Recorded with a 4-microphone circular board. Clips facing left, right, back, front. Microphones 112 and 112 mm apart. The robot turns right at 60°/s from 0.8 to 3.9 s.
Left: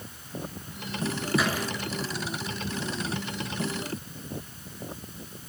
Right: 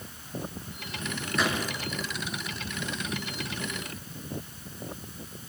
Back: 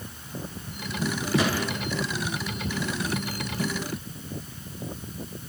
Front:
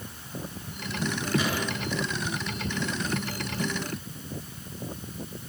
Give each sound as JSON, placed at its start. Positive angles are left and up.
{"t": 1.4, "sound": "a gunshot", "azimuth_deg": 175, "distance_m": 7.0}